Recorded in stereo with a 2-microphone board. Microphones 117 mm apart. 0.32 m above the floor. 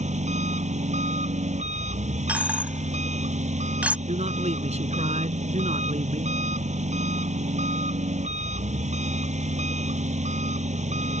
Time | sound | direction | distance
0.0 | an engine running | 80° right | ?
2.3 | a dropped coin | 10° right (ahead or behind) | ?
4.1 | a man speaking | 70° right (ahead or behind) | ?